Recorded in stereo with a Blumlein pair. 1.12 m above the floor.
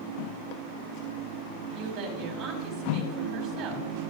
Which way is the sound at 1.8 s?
25° right.